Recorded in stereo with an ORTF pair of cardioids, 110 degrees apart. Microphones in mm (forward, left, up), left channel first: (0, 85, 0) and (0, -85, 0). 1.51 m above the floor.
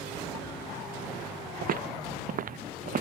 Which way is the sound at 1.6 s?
55° right.